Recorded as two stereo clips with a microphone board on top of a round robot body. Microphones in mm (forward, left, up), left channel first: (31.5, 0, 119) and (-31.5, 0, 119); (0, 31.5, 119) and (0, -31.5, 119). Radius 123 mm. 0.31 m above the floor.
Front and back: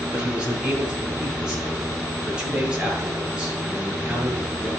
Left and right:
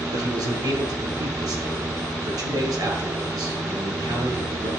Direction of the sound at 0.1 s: 105° right.